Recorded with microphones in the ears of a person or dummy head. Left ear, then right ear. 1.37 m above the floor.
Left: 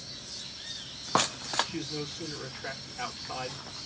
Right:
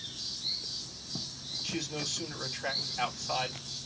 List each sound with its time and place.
1.6 s a man speaking: 45° right (ahead or behind), 3 m